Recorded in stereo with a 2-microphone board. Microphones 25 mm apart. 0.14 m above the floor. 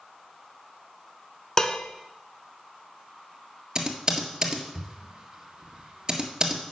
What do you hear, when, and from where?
1.6 s dishes clattering: 25° left (ahead or behind), 0.8 m
3.8 s typing on a keyboard: 30° right (ahead or behind), 1.7 m